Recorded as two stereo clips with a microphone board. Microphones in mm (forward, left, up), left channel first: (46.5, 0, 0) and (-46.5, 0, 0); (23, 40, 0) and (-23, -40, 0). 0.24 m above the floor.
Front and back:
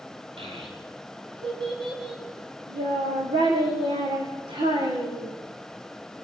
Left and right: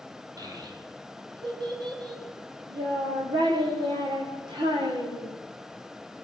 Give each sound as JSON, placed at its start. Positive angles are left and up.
{"t": 0.4, "sound": "a child speaking", "azimuth_deg": -165, "distance_m": 5.5}